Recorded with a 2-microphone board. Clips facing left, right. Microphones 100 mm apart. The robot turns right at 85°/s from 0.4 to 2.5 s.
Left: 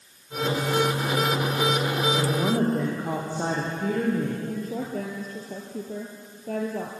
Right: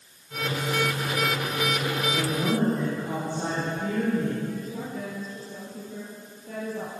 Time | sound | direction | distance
2.1 | a woman speaking | 10° left | 6 m
4.5 | a woman speaking | 55° left (ahead or behind) | 2.5 m